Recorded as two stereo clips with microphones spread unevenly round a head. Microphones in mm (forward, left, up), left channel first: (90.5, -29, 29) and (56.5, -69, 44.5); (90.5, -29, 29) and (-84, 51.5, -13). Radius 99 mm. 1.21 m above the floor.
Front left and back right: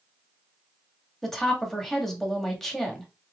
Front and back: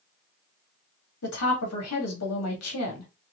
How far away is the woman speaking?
About 2 m.